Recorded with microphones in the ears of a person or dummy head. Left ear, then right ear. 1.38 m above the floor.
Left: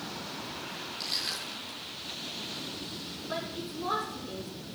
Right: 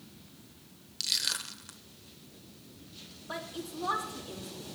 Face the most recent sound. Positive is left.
turn(degrees=-40)  # may be behind; listen again after turning